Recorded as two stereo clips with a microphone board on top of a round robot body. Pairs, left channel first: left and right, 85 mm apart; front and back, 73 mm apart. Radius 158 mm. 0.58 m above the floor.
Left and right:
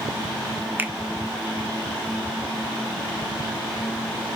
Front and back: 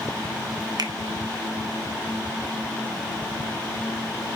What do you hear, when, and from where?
0.8 s a finger snap: 155° right, 1.6 m